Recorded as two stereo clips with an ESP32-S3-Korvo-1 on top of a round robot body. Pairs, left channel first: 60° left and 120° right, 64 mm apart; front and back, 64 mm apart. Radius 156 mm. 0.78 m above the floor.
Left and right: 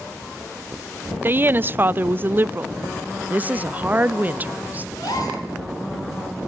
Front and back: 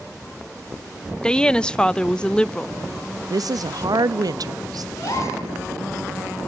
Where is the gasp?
35° left, 5 m.